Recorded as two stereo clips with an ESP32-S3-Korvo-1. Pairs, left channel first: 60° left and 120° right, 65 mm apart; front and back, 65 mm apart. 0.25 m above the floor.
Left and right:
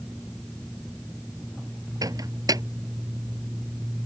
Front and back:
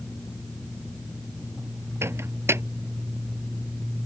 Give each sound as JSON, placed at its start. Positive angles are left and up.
{"t": 2.0, "sound": "a microwave", "azimuth_deg": -130}